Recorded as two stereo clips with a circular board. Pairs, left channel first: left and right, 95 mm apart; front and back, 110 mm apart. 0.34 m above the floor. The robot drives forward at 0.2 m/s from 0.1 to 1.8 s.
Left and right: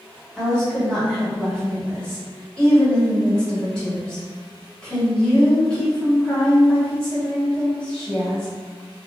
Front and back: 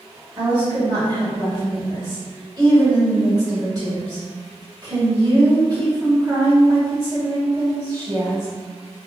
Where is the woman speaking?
160° left, 1.5 m; by 8.5 s 165° left, 1.7 m.